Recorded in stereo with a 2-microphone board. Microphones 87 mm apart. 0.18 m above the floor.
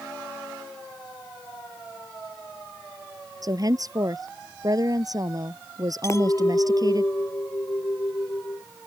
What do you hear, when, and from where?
3.4 s a woman speaking: 45° right (ahead or behind)
6.0 s a clink: 35° left (ahead or behind)